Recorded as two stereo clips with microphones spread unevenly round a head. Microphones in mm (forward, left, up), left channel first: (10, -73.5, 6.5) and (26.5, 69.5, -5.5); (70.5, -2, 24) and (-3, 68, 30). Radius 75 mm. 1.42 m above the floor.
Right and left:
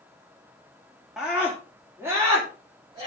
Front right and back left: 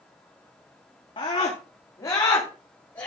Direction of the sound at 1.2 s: 5° right.